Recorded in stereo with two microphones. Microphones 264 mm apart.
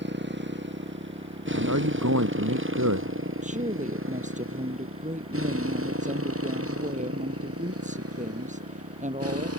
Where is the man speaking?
80° right.